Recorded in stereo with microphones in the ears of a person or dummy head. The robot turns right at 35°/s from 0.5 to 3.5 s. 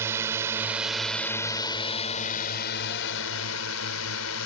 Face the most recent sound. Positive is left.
turn(degrees=90)